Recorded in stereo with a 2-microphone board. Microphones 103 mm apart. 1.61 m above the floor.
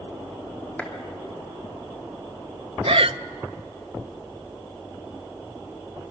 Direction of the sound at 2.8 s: 65° right (ahead or behind).